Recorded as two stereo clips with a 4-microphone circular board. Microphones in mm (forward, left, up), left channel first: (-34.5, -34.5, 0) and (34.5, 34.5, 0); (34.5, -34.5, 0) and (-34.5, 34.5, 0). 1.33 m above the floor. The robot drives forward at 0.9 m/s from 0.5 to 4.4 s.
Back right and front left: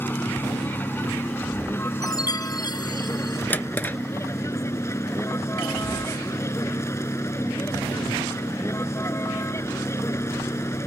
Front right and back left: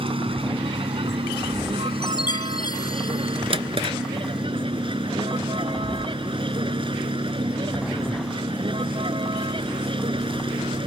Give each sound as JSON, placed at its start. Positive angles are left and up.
{"t": 0.0, "sound": "a vehicle", "azimuth_deg": 155}
{"t": 2.0, "sound": "a chime", "azimuth_deg": -85}
{"t": 3.5, "sound": "a drawer", "azimuth_deg": 155}